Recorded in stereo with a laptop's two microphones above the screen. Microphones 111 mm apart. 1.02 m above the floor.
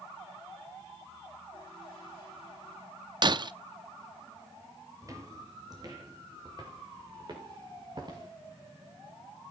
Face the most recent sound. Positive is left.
turn(degrees=-40)  # may be behind; listen again after turning